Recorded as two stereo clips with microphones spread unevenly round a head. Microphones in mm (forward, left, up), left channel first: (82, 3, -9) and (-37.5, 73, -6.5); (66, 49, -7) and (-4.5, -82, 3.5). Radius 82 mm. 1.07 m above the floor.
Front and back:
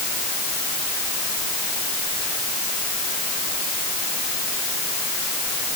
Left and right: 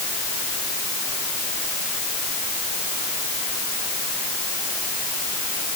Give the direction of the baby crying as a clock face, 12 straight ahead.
I don't hear a baby crying.